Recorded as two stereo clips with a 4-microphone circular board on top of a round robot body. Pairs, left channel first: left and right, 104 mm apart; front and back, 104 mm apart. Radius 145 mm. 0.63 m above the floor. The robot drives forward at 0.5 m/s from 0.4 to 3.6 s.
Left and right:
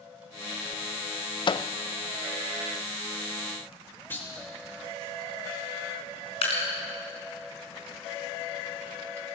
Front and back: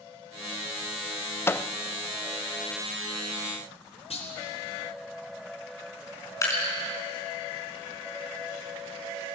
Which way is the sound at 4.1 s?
20° left.